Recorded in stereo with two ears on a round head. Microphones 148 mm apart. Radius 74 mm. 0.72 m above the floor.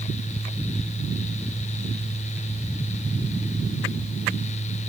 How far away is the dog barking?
No dog barking in this recording.